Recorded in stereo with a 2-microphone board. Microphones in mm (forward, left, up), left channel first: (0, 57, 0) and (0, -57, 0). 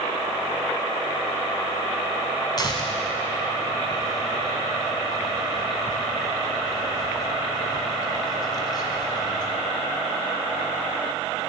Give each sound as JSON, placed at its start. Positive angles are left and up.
{"t": 2.6, "sound": "tearing paper", "side_deg": 35, "distance_m": 1.9}